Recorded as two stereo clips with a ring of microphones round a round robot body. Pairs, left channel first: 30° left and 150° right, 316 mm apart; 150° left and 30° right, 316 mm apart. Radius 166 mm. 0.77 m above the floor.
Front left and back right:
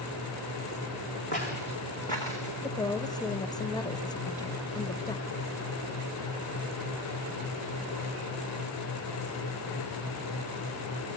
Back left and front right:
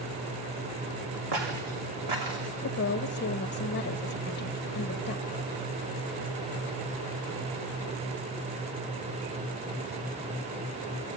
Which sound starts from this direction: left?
A woman speaking, at 2.6 s.